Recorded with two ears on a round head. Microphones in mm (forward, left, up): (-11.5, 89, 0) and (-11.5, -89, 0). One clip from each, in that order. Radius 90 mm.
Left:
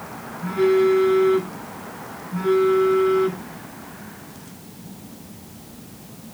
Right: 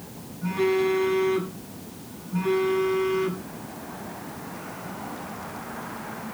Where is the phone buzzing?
10° right (ahead or behind), 8 m.